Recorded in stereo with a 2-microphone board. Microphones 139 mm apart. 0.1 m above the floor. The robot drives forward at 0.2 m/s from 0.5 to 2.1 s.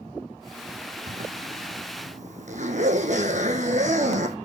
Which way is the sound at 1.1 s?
65° right (ahead or behind).